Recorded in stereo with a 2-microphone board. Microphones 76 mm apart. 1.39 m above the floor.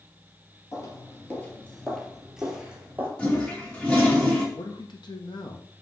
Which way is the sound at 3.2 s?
15° left (ahead or behind).